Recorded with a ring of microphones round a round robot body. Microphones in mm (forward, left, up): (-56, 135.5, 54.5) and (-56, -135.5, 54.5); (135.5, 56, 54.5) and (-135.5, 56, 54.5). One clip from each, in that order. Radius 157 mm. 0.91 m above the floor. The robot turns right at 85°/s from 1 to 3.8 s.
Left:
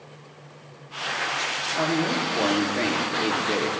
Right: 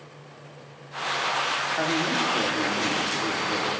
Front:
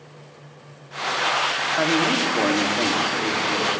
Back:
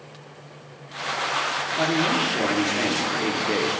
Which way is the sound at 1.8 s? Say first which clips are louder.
Even, front 1 dB; 15° right.